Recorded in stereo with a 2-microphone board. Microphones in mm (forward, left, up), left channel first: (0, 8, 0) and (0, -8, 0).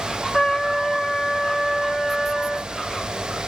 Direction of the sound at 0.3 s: 50° left (ahead or behind).